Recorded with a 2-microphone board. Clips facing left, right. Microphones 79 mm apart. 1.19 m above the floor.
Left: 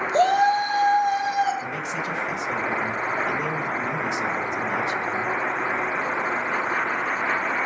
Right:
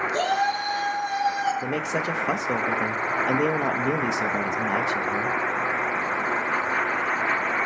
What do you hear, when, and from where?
0.1 s a shout: 30° left (ahead or behind), 8 m; by 1.5 s 25° left (ahead or behind), 7 m
1.6 s a man speaking: 75° right (ahead or behind), 1.2 m